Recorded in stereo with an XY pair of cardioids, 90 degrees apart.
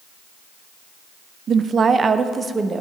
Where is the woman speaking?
60° right, 0.5 m; by 2.8 s 35° right, 1.1 m.